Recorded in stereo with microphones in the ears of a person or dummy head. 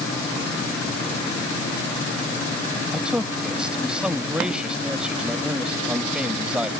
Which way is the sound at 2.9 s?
5° right (ahead or behind).